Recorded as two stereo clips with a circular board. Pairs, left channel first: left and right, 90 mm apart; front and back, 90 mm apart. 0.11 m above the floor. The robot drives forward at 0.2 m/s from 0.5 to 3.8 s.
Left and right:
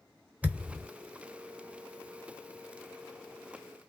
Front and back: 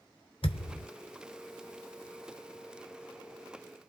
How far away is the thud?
About 0.9 m.